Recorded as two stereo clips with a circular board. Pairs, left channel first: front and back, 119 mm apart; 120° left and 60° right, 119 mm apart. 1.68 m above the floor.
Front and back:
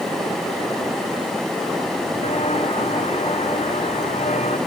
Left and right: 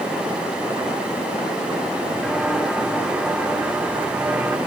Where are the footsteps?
30° left; by 4.6 s 15° left.